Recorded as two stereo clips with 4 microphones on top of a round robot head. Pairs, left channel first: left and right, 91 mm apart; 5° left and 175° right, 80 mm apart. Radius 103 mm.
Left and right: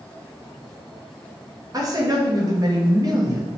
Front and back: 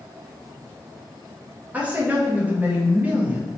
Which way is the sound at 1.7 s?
110° right.